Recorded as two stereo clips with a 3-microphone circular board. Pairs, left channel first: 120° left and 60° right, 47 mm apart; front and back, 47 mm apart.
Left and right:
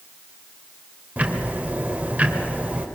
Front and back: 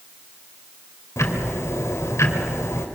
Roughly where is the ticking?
Ahead.